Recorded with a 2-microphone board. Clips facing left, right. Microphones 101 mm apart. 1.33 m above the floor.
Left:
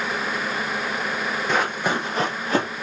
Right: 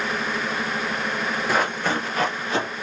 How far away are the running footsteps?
About 1.3 m.